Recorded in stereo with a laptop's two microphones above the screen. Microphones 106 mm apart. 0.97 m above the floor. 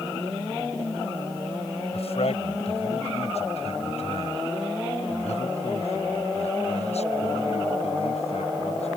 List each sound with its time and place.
1.9 s a man speaking: 75° left (ahead or behind); by 8.9 s 80° left